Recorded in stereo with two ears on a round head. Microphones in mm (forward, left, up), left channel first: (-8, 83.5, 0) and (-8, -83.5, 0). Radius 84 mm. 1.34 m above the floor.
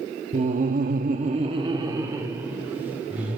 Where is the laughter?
35° right (ahead or behind), 1.0 m; by 3.4 s 10° right (ahead or behind), 3 m.